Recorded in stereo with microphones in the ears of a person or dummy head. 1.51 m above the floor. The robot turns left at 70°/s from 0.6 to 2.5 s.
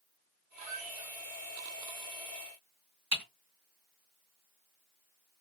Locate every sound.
0.6 s a squeak: 45° right, 0.7 m; by 1.1 s 85° right, 0.7 m
3.1 s typing on a keyboard: 45° right (ahead or behind), 2 m